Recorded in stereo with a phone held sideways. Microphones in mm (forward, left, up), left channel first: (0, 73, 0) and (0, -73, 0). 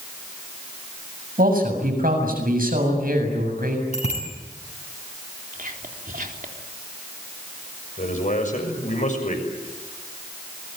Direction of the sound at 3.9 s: 50° left (ahead or behind).